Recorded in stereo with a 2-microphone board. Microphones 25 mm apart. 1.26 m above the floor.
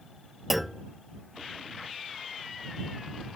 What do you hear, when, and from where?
0.5 s a clunk: centre (ahead or behind)